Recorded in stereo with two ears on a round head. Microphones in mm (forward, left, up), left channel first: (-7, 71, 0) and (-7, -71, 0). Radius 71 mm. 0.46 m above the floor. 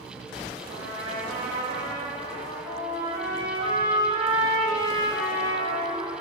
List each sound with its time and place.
0.6 s a trumpet: 20° left (ahead or behind), 5 m